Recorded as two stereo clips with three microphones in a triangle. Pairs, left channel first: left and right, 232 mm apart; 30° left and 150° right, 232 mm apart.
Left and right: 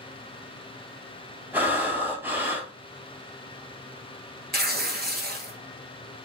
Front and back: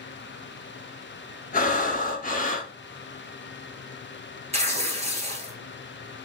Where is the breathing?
10° right, 0.8 m.